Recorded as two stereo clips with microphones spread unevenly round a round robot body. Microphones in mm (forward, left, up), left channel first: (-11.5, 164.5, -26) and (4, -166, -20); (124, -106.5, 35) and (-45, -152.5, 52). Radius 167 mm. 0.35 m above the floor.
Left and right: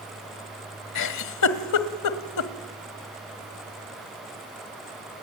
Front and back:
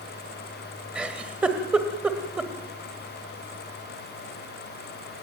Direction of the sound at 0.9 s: 105° left.